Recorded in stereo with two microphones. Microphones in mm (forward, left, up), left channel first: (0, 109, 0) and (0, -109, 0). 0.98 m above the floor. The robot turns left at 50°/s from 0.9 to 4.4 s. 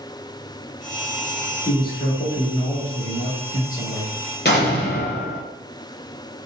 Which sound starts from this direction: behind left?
A man speaking, at 1.6 s.